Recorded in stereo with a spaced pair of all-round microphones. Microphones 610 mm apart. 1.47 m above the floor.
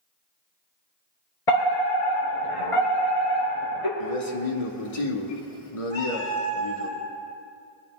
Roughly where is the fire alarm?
Left.